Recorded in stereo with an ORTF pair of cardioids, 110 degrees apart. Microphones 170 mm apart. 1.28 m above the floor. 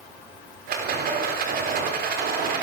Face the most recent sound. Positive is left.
turn(degrees=-60)